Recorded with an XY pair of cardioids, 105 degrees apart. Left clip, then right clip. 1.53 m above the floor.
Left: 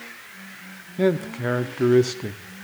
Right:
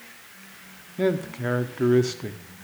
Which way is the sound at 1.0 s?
15° left.